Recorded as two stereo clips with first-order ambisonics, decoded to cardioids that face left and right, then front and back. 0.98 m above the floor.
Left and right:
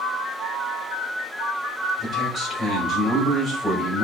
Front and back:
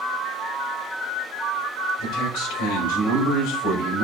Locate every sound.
2.0 s a man speaking: 15° left, 4 m